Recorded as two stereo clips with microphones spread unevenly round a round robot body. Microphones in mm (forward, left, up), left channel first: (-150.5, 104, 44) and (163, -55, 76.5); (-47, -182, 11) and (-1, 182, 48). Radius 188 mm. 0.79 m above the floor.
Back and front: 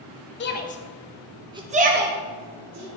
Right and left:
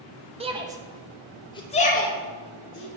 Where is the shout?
155° left, 0.9 m; by 2.9 s 55° right, 1.2 m.